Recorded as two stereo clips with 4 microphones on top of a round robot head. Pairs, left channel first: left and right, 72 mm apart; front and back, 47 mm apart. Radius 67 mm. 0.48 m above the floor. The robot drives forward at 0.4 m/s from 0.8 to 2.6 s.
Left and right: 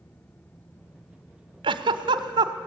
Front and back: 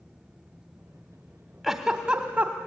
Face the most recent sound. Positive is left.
turn(degrees=-115)